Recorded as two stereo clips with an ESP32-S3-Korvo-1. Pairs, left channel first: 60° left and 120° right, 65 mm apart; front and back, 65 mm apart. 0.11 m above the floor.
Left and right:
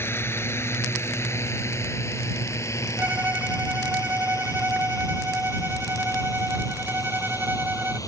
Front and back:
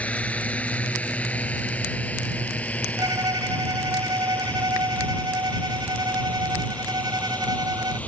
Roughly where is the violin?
Behind.